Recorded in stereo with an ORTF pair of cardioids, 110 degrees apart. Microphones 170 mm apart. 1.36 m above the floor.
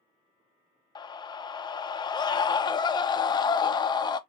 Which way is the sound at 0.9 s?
25° left.